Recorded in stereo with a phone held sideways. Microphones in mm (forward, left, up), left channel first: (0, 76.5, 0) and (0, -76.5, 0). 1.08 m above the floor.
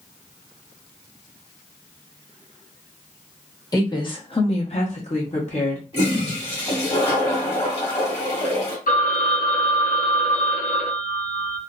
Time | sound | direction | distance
3.7 | a woman speaking | 25° left (ahead or behind) | 1.1 m
5.9 | a toilet flushing | 40° left (ahead or behind) | 1.3 m
8.9 | a phone ringing | 60° left (ahead or behind) | 0.8 m